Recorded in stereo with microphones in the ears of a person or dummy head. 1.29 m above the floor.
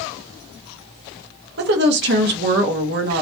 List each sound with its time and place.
1.6 s a woman speaking: 55° right (ahead or behind), 0.7 m